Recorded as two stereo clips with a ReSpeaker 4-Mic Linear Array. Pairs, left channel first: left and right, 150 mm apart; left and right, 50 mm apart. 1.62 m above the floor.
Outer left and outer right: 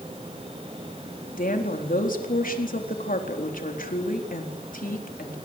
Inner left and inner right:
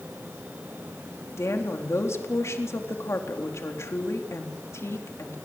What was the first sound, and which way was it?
A woman speaking, 65° left (ahead or behind).